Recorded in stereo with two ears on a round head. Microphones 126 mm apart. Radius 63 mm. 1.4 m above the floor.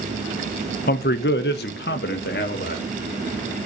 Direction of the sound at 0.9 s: 70° left (ahead or behind).